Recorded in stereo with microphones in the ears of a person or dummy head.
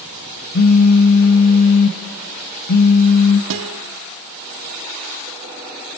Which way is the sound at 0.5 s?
50° left (ahead or behind).